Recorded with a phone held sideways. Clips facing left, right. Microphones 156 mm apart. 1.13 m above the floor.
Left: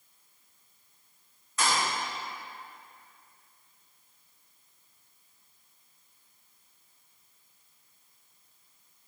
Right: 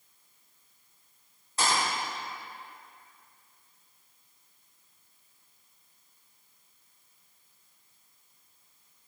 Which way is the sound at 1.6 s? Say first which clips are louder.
Even; 35° right (ahead or behind).